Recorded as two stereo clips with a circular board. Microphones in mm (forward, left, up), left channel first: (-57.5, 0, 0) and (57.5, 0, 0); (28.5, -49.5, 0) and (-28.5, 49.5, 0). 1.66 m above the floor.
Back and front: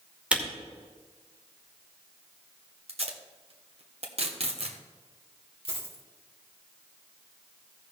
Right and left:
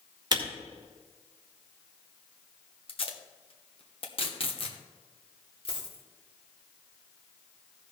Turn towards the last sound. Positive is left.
turn(degrees=-30)